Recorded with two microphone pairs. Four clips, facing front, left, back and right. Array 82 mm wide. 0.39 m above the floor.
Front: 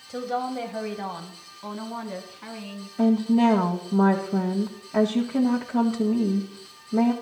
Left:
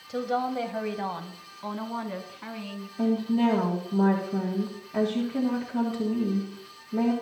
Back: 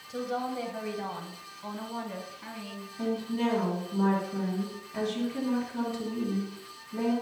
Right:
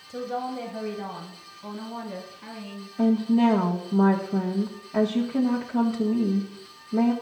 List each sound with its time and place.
0.1 s a woman speaking: 55° left, 1.4 m; by 2.9 s 70° left, 3.5 m
3.0 s a woman speaking: 20° right, 2.0 m